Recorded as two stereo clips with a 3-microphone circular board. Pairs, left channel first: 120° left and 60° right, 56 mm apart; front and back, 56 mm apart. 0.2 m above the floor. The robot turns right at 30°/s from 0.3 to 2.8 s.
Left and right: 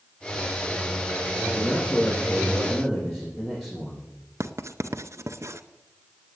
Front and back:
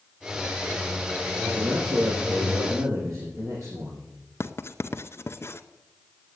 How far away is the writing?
About 0.6 m.